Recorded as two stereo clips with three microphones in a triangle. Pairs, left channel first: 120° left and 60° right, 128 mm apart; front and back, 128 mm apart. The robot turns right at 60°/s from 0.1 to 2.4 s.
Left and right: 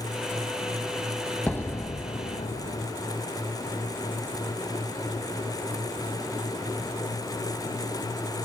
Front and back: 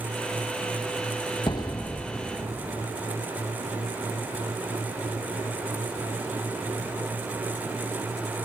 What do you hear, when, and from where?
1.5 s an explosion: 40° left, 1.0 m; by 2.9 s 100° left, 1.0 m